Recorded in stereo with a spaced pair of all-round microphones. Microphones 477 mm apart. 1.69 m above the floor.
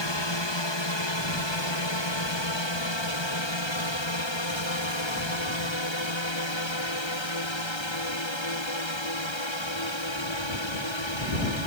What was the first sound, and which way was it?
A drone, 60° left (ahead or behind).